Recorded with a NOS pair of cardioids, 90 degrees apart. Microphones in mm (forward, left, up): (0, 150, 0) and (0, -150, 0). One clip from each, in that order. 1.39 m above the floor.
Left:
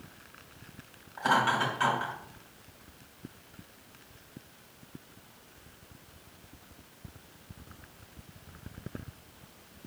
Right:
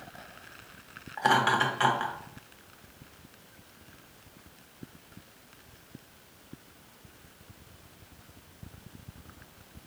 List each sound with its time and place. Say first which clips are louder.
1.2 s laughter: right 2 dB; 40° right, 1.8 m